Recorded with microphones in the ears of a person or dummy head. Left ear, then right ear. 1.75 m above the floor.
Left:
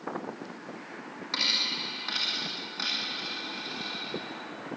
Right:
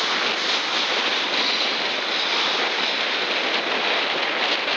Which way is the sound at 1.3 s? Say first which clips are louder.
Right 6 dB; 5° left (ahead or behind).